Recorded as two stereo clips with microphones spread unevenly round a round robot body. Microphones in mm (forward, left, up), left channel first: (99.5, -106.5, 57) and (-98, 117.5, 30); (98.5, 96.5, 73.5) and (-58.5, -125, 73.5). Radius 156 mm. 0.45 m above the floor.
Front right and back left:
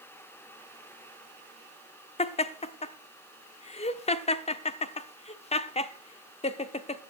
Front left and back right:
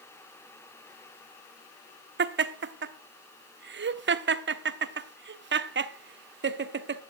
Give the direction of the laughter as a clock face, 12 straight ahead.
4 o'clock.